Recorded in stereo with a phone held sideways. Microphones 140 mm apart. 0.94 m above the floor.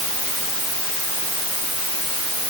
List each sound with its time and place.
Only background noise.